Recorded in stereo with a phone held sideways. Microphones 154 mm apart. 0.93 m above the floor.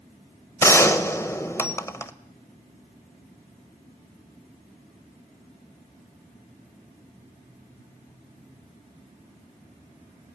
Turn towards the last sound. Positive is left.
turn(degrees=15)  # may be behind; listen again after turning